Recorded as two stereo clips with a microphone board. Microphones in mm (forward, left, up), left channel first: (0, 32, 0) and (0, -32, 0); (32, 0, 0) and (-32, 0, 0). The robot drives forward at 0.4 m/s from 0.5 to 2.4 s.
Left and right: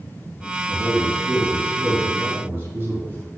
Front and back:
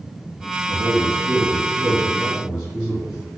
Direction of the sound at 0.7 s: 90° right.